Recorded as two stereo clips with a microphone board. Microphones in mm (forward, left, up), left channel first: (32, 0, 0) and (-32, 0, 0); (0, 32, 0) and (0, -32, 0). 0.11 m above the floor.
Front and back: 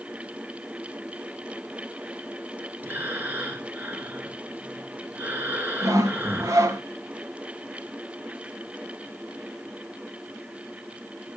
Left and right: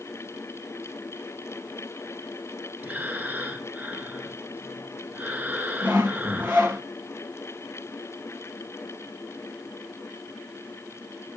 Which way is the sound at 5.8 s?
155° right.